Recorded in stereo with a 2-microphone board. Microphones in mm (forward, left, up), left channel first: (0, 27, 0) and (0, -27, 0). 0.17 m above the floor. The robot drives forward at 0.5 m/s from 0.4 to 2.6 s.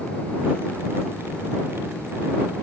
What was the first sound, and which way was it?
Only background noise.